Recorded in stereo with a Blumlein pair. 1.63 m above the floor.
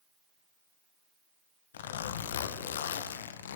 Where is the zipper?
60° left, 1.5 m.